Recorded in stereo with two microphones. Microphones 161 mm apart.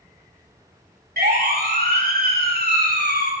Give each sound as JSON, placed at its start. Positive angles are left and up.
{"t": 1.2, "sound": "a siren", "side_deg": -75, "distance_m": 5.0}